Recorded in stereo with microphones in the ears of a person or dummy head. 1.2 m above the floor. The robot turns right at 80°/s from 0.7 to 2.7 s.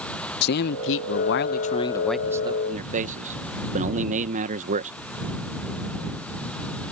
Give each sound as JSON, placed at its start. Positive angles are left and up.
{"t": 0.4, "sound": "a man speaking", "azimuth_deg": 60}